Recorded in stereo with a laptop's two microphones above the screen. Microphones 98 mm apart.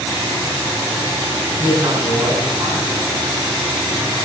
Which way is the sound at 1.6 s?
30° right (ahead or behind).